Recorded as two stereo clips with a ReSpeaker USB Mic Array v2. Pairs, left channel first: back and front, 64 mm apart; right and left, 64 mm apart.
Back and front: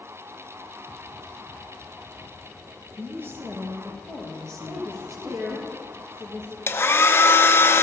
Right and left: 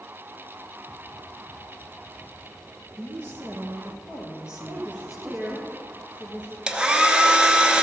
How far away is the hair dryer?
About 0.7 m.